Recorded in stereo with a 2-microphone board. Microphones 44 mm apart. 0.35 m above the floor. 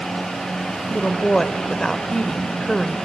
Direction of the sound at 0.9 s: 15° left (ahead or behind).